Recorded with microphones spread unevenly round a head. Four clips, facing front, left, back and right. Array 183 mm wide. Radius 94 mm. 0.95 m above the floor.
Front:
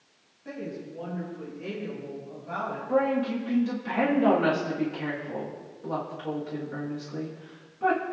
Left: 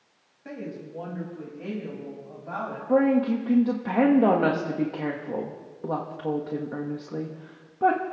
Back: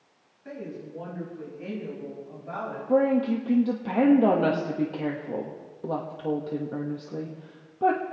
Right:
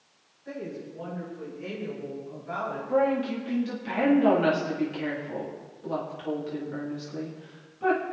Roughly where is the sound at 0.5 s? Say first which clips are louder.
Even, front 1 dB; left.